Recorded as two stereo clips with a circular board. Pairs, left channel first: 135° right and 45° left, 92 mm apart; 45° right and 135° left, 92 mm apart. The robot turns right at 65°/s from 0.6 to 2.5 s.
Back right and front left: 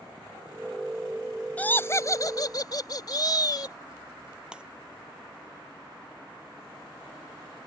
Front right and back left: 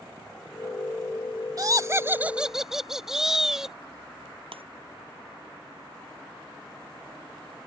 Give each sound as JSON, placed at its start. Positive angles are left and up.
{"t": 1.6, "sound": "laughter", "azimuth_deg": 160}
{"t": 4.5, "sound": "breaking glass", "azimuth_deg": 125}